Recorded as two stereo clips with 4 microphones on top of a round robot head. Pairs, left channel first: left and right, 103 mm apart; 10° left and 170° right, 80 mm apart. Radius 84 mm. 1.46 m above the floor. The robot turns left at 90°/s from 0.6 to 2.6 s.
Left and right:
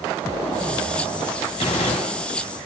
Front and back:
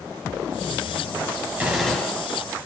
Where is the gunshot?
120° left, 6.5 m; by 2.3 s 55° left, 6.5 m.